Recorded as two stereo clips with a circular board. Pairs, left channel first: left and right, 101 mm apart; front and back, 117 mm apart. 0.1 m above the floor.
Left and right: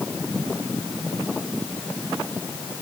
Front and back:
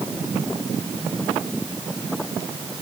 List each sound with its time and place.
Only background noise.